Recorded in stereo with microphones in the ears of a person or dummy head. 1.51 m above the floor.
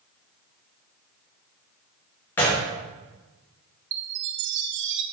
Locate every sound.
2.4 s a gunshot: 10° left (ahead or behind), 0.6 m
3.9 s a chime: 60° right (ahead or behind), 0.6 m